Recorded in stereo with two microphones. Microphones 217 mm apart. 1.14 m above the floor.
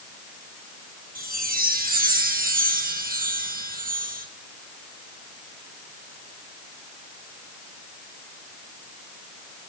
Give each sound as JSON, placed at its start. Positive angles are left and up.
{"t": 1.1, "sound": "a chime", "side_deg": -40, "distance_m": 1.6}